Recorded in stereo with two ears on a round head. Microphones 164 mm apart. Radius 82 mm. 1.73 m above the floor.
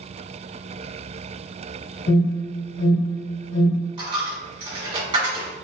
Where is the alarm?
75° left (ahead or behind), 1.6 m.